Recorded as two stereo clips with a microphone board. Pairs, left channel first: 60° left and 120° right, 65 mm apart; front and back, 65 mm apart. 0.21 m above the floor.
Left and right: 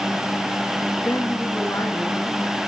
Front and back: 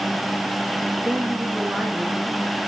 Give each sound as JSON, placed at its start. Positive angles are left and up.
{"t": 1.0, "sound": "a woman speaking", "azimuth_deg": 105, "distance_m": 2.0}